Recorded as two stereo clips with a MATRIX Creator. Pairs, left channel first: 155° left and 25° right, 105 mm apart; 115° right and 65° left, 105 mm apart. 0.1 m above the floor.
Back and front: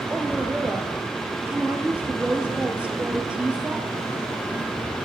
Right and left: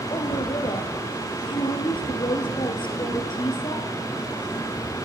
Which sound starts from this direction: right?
A woman speaking, at 0.1 s.